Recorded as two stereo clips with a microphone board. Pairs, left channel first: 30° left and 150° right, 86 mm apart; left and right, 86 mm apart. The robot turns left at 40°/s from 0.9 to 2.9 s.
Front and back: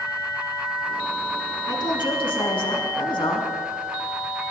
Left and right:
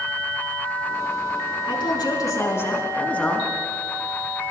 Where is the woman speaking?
65° left, 4.5 m; by 3.5 s 15° left, 4.5 m.